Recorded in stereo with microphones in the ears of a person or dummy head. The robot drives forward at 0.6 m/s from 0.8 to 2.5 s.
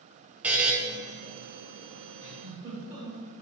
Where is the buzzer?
Centre (ahead or behind), 0.8 m.